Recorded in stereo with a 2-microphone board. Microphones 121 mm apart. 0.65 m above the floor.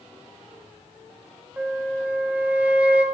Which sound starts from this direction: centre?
A flute, at 1.6 s.